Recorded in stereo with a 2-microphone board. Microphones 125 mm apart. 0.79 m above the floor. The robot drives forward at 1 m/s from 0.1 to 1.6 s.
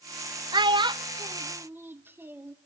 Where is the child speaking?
35° right (ahead or behind), 0.5 m; by 2.5 s 20° right (ahead or behind), 1.0 m.